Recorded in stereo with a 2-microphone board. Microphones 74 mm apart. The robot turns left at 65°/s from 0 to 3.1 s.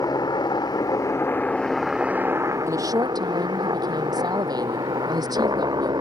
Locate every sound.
0.0 s a helicopter: 120° left; by 6.0 s 85° right
2.7 s a woman speaking: 45° right (ahead or behind); by 5.9 s 65° right (ahead or behind)